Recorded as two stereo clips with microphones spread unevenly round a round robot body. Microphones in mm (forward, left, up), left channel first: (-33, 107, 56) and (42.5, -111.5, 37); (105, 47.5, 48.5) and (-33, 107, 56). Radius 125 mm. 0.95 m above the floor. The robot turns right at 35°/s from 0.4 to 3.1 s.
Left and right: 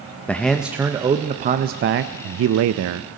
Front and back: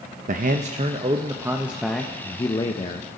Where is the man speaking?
165° right, 0.5 m; by 3.1 s 70° right, 0.5 m.